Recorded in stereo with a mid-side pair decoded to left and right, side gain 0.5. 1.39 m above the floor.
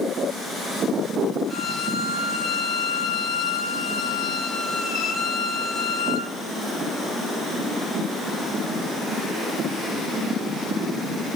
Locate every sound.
1.5 s a violin: 45° left, 6.5 m